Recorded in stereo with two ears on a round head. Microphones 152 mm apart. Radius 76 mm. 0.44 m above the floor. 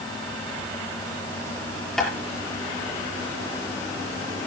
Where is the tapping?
5° left (ahead or behind), 6.5 m.